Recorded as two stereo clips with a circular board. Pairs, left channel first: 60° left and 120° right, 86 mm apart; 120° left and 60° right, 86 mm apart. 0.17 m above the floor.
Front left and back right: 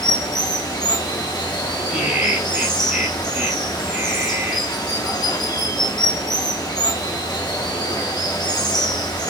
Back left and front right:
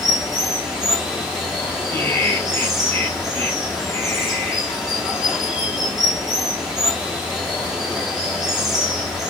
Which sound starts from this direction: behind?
Laughter, at 1.9 s.